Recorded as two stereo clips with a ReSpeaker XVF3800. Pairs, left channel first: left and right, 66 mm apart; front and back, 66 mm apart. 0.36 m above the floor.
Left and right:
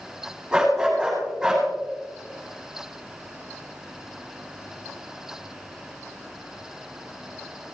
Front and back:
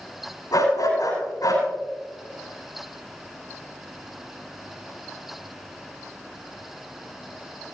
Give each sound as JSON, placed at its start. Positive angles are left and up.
{"t": 0.5, "sound": "a dog barking", "azimuth_deg": -5, "distance_m": 8.5}